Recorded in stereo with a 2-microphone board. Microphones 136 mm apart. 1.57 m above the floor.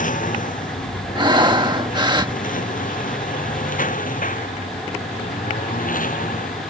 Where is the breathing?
35° right (ahead or behind).